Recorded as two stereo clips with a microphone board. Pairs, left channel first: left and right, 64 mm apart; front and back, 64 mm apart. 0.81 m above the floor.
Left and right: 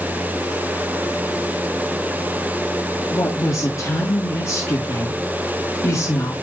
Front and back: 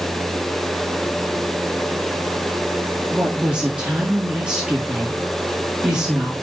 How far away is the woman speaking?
About 1.9 m.